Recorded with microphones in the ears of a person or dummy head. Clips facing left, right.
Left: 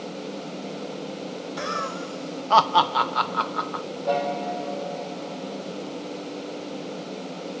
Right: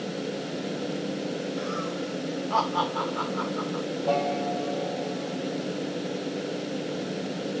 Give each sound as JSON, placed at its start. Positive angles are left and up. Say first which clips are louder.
{"t": 1.6, "sound": "laughter", "louder": "right 1 dB", "side_deg": 70, "distance_m": 1.3}
{"t": 4.1, "sound": "a piano", "louder": "left 1 dB", "side_deg": 10, "distance_m": 5.5}